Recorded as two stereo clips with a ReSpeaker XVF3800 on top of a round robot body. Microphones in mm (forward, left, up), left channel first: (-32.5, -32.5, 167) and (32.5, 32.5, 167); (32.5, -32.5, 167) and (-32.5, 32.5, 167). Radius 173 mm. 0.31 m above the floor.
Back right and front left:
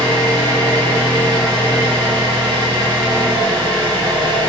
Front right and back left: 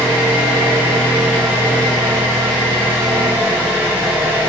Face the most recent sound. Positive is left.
turn(degrees=70)